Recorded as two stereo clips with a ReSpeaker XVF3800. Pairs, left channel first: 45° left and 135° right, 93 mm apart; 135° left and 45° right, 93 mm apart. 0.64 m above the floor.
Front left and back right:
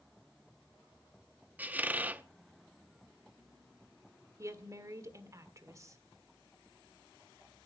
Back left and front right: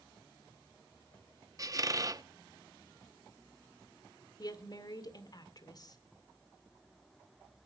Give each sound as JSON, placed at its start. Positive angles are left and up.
{"t": 1.6, "sound": "a squeak", "azimuth_deg": -70, "distance_m": 0.6}
{"t": 4.4, "sound": "a woman speaking", "azimuth_deg": 175, "distance_m": 1.8}